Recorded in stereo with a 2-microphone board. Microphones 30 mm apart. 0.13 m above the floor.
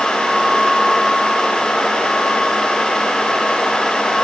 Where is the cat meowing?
I don't hear a cat meowing.